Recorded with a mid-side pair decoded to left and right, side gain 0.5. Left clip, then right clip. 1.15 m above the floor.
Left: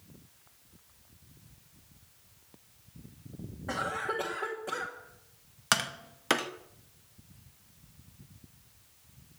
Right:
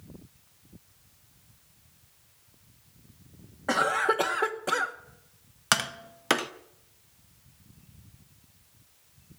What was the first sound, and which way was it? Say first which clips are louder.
A cough: right 8 dB; 55° right.